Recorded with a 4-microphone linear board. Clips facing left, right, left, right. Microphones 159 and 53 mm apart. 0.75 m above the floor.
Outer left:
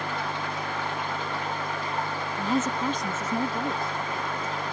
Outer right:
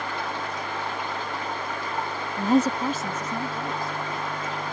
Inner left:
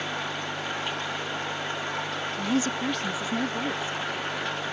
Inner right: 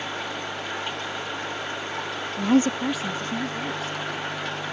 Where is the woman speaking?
55° right (ahead or behind); by 4.5 s 30° left (ahead or behind).